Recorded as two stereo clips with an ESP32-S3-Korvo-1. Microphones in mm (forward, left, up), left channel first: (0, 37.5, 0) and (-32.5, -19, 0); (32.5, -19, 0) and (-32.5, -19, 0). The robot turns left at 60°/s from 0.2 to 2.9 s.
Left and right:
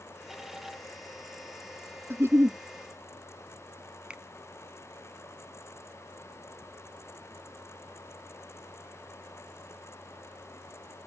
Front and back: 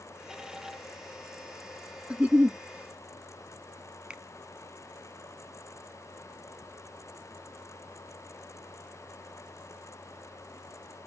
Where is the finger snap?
150° right.